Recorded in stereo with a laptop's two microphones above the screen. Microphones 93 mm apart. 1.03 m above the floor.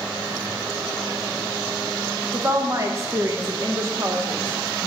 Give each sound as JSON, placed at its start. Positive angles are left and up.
{"t": 2.3, "sound": "a woman speaking", "side_deg": -35, "distance_m": 0.6}